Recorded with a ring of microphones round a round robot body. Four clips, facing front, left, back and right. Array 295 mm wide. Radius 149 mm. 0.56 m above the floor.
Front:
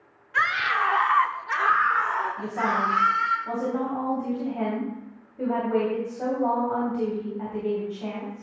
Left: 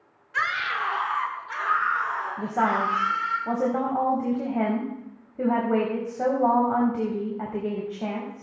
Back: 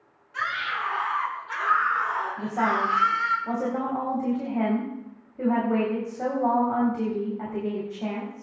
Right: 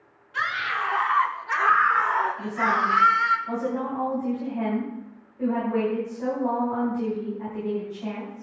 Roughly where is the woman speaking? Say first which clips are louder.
Even, back 1 dB; left.